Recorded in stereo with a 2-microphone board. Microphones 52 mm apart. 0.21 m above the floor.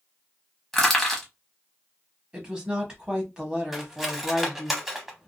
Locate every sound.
0.7 s crushing: 5° left (ahead or behind), 1.0 m
2.3 s a woman speaking: 15° right (ahead or behind), 1.0 m
3.7 s cutlery clinking: 5° right (ahead or behind), 0.6 m